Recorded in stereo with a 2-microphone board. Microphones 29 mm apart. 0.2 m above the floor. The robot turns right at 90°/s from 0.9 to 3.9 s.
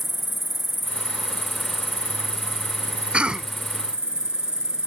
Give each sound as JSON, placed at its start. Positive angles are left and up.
{"t": 0.0, "sound": "an insect", "azimuth_deg": -60}
{"t": 3.1, "sound": "a cough", "azimuth_deg": -65}